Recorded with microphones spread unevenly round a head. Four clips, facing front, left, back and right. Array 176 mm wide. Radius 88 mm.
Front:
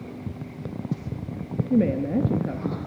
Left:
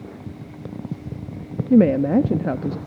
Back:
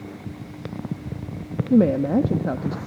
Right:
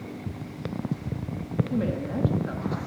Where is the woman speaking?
110° left, 1.1 m.